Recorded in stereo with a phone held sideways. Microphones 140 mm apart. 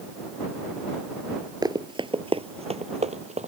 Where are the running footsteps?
30° right (ahead or behind); by 3.5 s 60° right (ahead or behind).